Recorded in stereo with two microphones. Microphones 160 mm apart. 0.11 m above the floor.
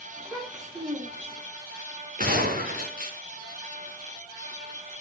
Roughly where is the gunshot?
Right.